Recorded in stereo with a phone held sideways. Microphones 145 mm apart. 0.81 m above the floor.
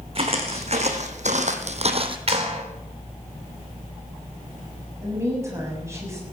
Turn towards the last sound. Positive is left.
turn(degrees=-20)  # may be behind; listen again after turning